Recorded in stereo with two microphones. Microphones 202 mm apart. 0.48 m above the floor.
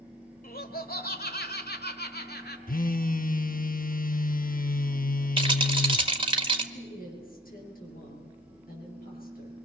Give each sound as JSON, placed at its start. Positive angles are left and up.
{"t": 0.4, "sound": "laughter", "side_deg": 45, "distance_m": 2.0}
{"t": 2.7, "sound": "a phone buzzing", "side_deg": 45, "distance_m": 0.6}
{"t": 5.4, "sound": "a rattle", "side_deg": -25, "distance_m": 1.6}
{"t": 6.7, "sound": "a woman speaking", "side_deg": 45, "distance_m": 8.5}